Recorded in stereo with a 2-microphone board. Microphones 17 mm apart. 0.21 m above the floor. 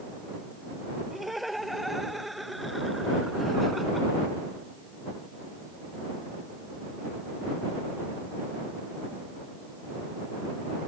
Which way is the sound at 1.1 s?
Centre (ahead or behind).